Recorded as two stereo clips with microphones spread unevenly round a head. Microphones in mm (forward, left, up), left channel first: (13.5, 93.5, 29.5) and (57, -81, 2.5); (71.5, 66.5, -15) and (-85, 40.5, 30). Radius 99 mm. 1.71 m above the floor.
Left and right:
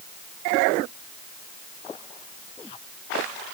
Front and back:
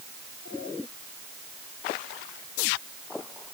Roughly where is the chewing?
No chewing in this recording.